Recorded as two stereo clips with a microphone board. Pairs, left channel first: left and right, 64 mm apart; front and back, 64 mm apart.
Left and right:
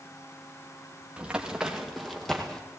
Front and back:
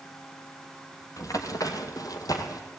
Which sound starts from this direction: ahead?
Running footsteps, at 1.2 s.